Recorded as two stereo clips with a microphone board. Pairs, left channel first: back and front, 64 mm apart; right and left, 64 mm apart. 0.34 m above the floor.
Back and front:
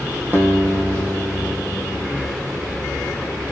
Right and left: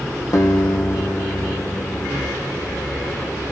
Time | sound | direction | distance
0.3 | a guitar | 60° right | 2.5 m